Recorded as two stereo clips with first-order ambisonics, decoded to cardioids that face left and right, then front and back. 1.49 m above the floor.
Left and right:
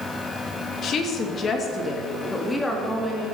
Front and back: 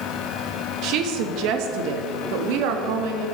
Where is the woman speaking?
145° left, 1.8 m; by 3.2 s 175° left, 2.5 m.